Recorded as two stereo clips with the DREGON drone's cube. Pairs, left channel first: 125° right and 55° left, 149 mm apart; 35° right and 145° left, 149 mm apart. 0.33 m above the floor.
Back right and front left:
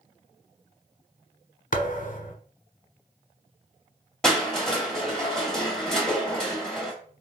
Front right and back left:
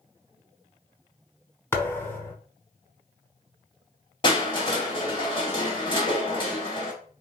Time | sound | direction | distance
1.7 | a thud | 110° right | 1.1 m
4.2 | crushing | 40° right | 1.6 m